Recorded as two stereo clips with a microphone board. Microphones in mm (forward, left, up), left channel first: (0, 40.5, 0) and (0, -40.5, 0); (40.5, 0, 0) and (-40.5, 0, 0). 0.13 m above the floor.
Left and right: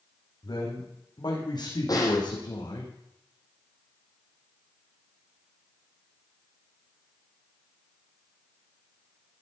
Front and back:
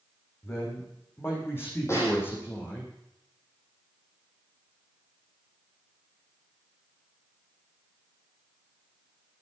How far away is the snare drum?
About 6.5 m.